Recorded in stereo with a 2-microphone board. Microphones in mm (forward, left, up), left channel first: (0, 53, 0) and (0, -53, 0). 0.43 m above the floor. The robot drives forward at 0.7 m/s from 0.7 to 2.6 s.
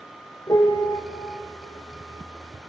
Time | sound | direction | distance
0.5 | a piano | 40° left (ahead or behind) | 1.8 m